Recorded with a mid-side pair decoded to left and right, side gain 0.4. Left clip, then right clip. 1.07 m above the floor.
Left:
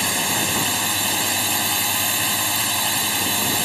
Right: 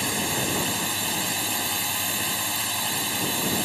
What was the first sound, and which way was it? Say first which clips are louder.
A drone: left 5 dB; 40° left.